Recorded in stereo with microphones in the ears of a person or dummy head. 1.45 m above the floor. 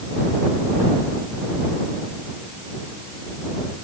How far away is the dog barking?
I don't hear a dog barking.